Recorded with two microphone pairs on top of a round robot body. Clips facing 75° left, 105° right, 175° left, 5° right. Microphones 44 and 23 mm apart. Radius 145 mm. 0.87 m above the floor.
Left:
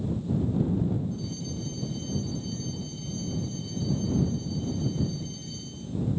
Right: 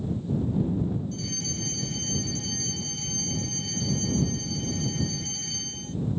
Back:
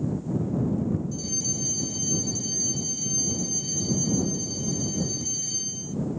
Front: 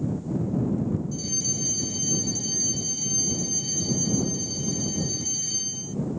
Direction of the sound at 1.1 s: 85° right.